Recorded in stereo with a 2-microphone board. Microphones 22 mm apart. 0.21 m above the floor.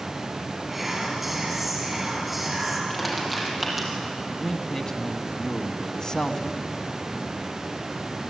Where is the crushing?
Centre (ahead or behind), 6.5 m.